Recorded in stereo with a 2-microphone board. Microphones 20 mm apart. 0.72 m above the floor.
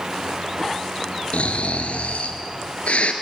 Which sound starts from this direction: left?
Snoring, at 1.3 s.